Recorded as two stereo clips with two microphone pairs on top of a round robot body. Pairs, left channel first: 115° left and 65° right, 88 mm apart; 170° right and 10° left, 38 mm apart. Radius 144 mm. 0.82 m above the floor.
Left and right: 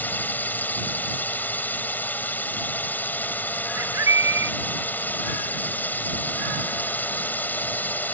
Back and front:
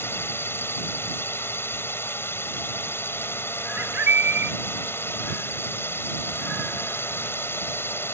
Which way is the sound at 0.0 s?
175° right.